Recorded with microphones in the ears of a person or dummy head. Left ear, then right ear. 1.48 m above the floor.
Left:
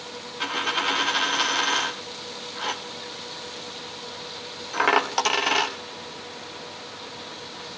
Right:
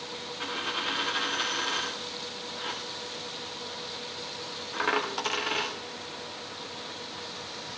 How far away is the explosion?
I don't hear an explosion.